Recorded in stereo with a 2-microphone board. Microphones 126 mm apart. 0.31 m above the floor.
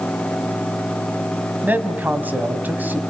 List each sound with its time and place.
1.6 s a man speaking: 15° right (ahead or behind), 2.5 m